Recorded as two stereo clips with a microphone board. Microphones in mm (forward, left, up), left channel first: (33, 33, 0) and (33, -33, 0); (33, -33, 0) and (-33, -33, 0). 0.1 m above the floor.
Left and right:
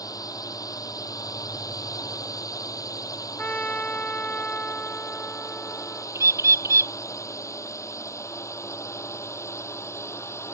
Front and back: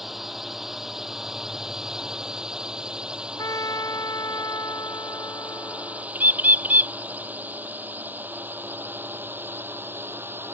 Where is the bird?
120° right.